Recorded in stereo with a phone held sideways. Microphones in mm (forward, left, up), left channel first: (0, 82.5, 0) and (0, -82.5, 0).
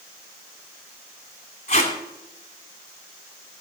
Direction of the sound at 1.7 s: 45° left (ahead or behind).